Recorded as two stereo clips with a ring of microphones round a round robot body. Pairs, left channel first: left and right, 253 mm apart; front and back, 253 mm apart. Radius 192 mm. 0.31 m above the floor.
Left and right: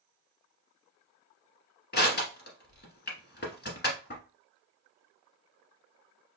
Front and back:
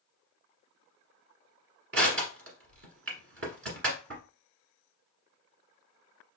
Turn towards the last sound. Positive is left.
turn(degrees=140)